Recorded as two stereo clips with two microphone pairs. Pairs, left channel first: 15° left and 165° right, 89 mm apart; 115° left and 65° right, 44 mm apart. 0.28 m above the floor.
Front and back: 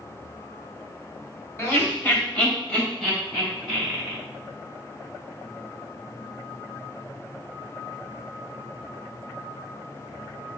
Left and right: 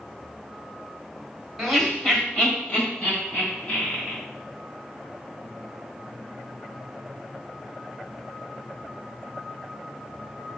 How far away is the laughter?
About 1.3 m.